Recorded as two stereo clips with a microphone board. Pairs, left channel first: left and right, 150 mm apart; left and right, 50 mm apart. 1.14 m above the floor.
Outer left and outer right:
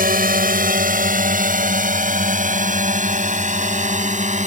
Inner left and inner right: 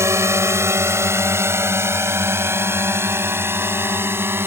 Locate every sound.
0.0 s a drone: 70° right (ahead or behind); by 4.5 s 50° right (ahead or behind)